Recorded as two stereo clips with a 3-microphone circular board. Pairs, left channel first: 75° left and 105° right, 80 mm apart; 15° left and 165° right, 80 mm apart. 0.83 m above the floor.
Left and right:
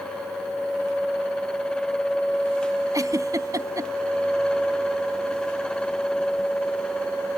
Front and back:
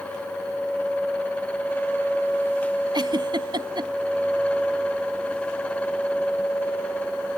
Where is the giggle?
150° right.